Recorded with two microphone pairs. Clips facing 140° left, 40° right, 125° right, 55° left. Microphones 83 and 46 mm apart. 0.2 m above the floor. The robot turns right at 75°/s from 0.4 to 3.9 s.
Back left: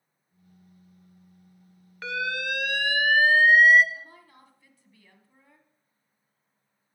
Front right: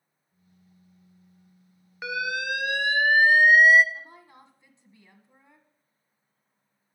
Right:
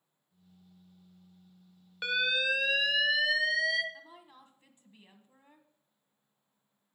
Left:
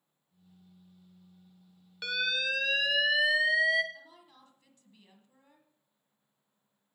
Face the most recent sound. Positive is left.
turn(degrees=-80)